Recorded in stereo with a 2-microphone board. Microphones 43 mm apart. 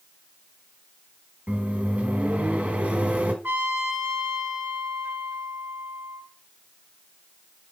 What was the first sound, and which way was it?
A microwave, 40° right (ahead or behind).